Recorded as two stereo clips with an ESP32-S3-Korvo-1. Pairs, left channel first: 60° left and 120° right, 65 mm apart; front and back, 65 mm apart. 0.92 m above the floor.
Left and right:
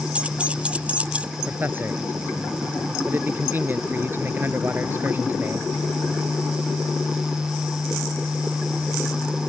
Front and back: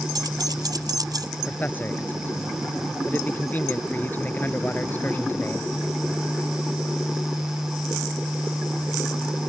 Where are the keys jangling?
170° left.